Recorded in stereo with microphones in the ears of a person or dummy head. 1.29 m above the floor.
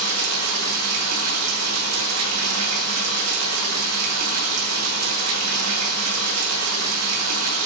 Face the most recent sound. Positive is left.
turn(degrees=-85)